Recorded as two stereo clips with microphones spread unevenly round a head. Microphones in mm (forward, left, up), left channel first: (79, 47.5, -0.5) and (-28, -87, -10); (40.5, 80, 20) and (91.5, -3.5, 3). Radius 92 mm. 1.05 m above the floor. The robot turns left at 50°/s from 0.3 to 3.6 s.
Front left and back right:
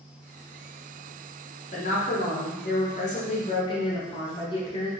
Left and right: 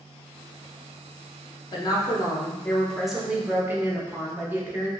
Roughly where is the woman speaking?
Left.